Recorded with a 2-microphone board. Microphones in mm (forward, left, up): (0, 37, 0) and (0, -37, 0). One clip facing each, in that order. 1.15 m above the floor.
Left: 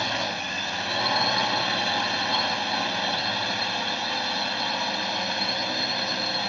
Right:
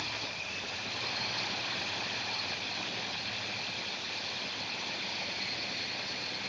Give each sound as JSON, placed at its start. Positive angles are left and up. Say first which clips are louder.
{"t": 0.0, "sound": "a drone", "louder": "left 12 dB", "side_deg": 80}